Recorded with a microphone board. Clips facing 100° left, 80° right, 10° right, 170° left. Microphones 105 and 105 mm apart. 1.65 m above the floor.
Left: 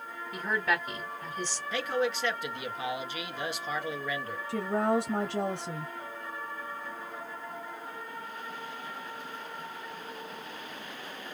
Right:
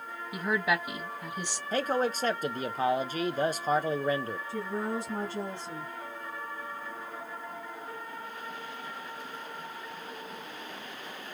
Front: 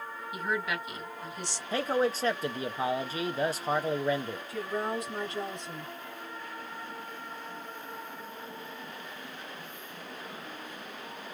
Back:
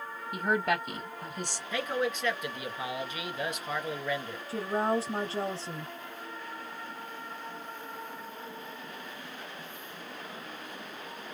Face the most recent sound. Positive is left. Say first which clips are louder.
# left 7 dB, back 5 dB
turn(degrees=115)